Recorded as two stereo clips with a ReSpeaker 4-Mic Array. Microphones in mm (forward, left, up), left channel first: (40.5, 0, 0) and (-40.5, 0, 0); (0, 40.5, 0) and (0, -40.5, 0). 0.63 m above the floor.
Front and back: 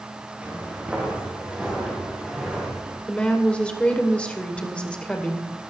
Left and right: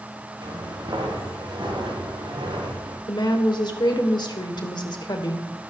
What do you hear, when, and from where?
0.4 s footsteps: 110° right, 5.5 m; by 3.0 s 100° right, 6.5 m
3.1 s a woman speaking: 75° left, 2.5 m